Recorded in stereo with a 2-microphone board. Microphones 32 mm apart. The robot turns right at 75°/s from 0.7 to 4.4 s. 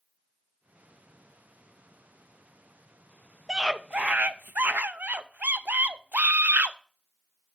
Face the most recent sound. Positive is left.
turn(degrees=-95)